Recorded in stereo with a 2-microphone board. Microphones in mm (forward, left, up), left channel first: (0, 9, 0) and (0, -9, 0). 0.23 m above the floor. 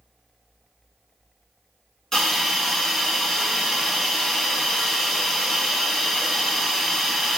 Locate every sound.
2.1 s a hiss: 25° left (ahead or behind), 0.8 m